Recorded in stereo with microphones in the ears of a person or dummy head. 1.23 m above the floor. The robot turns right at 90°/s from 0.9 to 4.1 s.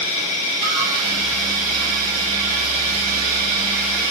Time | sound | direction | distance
0.0 | an insect | 85° left | 3.5 m